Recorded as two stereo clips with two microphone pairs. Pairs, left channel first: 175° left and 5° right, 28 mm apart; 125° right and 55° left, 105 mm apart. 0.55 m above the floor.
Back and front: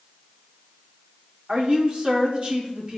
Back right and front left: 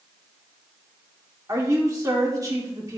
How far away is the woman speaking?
About 1.6 m.